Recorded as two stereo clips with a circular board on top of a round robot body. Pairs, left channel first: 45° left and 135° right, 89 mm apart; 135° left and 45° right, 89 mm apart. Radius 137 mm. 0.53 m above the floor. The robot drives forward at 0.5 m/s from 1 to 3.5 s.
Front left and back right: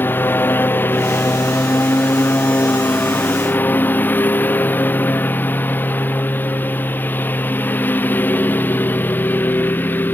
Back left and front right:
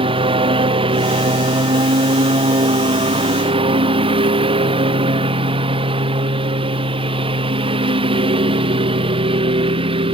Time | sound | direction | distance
0.0 | a lawn mower | 25° right | ?